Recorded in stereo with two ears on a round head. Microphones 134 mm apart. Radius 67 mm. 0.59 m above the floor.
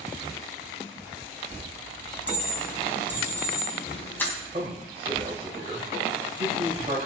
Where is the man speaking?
40° right (ahead or behind), 3.5 m.